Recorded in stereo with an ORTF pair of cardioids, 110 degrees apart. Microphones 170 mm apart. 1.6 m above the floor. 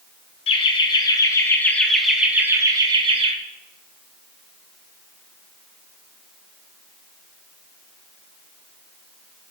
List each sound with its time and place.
0.5 s laughter: 35° left, 1.5 m; by 3.3 s 35° right, 1.2 m